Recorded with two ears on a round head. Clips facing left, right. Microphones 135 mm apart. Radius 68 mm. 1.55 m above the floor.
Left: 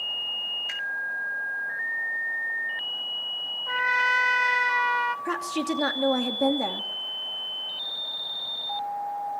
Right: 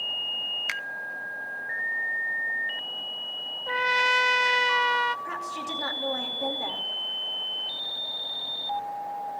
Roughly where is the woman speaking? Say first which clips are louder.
Left 7 dB; left.